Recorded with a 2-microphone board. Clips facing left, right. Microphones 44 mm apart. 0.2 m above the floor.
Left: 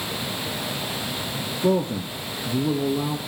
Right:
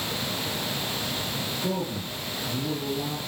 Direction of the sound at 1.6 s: 70° left (ahead or behind).